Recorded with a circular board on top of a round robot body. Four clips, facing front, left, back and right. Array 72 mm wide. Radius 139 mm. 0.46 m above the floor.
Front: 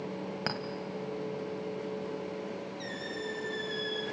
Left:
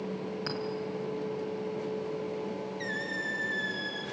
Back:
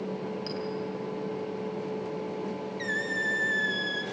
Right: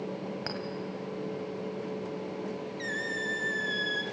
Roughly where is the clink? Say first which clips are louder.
Left 2 dB, back 1 dB; ahead.